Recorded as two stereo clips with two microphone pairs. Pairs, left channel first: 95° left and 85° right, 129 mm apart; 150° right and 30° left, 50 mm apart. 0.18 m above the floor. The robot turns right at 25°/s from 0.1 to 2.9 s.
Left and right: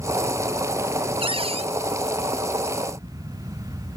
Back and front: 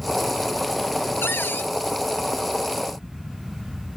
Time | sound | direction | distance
1.2 | a cupboard door | 120° right | ?